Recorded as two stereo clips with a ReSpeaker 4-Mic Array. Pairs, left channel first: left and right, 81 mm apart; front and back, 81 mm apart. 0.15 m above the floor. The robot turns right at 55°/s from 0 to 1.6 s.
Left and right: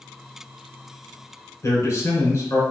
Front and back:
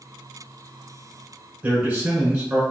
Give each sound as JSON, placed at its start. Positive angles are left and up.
{"t": 1.6, "sound": "a man speaking", "azimuth_deg": 115, "distance_m": 2.0}